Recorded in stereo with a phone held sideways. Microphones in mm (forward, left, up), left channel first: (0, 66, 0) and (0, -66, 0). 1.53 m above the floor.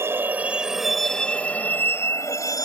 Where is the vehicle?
20° right (ahead or behind); by 2.6 s 25° left (ahead or behind).